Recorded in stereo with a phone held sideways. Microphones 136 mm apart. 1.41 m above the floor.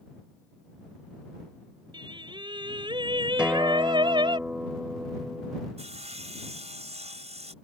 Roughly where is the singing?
Right.